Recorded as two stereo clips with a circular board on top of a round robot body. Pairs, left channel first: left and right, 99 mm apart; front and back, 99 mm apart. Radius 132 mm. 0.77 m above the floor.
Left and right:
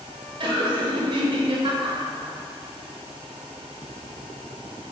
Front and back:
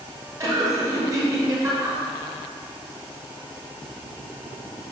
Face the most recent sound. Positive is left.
turn(degrees=-125)